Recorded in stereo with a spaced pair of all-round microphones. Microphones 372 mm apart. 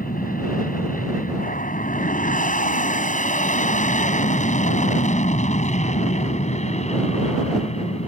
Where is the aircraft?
20° left (ahead or behind); by 8.1 s 15° left (ahead or behind).